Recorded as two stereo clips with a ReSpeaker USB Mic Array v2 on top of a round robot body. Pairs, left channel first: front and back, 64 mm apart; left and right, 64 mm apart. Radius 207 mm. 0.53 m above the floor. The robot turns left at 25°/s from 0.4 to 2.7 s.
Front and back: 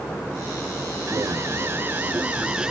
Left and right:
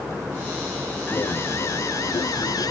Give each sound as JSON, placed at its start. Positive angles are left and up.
{"t": 1.1, "sound": "an alarm", "azimuth_deg": 145}